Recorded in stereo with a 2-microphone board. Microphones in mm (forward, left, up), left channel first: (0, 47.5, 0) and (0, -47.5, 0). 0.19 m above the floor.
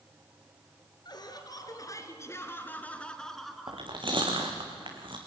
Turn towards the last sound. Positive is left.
turn(degrees=-60)  # may be behind; listen again after turning